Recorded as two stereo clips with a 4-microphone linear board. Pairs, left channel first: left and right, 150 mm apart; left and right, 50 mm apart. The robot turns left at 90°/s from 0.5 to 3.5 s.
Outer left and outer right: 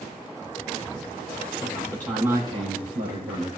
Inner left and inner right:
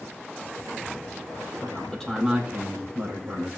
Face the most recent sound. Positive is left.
turn(degrees=-125)